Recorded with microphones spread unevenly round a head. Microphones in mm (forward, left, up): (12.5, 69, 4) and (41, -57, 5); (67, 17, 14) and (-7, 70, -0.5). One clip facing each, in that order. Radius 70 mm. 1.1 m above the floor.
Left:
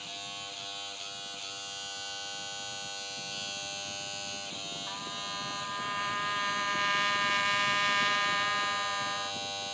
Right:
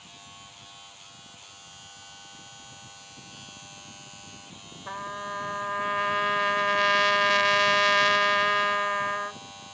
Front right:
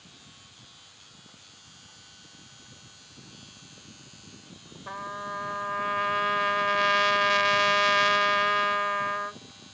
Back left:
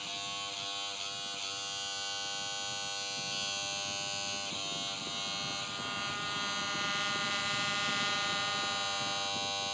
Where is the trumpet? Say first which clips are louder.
Right 9 dB, front right 7 dB; 55° right.